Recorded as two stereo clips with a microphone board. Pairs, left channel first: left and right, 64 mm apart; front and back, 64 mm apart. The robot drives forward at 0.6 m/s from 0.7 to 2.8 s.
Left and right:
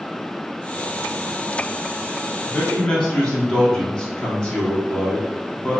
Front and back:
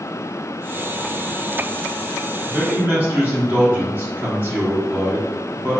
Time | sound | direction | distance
2.5 | a man speaking | 140° left | 0.8 m